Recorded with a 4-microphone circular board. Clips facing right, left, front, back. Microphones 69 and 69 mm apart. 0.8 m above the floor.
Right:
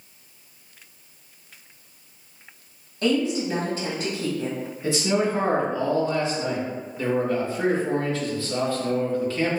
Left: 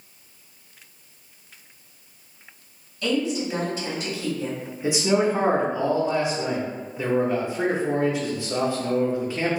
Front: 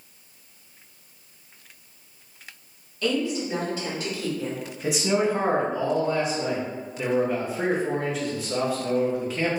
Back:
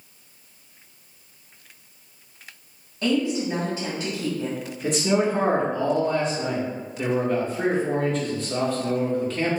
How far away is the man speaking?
About 0.8 m.